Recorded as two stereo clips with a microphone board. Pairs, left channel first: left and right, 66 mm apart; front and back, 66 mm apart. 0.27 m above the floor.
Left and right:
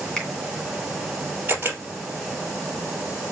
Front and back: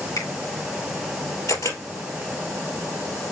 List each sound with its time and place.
0.2 s a finger snap: 5° left, 2 m
1.5 s a camera shutter: 30° right, 2.5 m